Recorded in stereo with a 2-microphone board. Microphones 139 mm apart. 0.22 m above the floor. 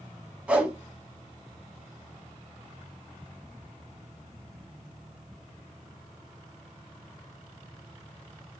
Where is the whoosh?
10° right (ahead or behind), 0.7 m.